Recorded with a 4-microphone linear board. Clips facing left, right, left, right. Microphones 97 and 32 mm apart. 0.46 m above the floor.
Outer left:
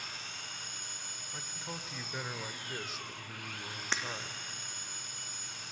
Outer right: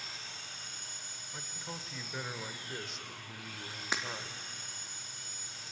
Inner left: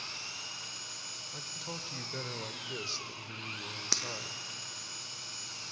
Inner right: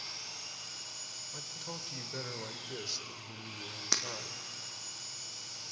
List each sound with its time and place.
0.0 s an engine running: 60° left (ahead or behind), 4 m
1.3 s a man speaking: centre (ahead or behind), 1.3 m
3.9 s breaking glass: 10° right (ahead or behind), 2 m